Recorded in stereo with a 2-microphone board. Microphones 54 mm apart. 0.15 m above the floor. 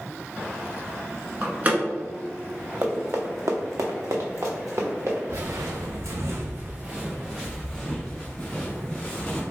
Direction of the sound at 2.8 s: 45° right (ahead or behind).